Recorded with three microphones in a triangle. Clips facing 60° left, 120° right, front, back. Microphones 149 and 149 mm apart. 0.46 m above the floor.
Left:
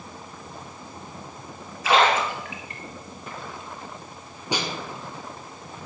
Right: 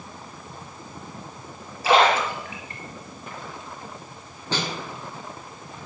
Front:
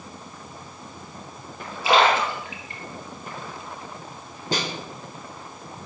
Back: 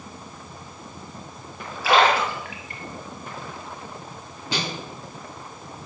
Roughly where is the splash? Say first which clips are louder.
Right 2 dB, even; ahead right.